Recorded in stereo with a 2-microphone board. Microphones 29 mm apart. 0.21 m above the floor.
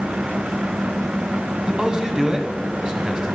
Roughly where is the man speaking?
Right.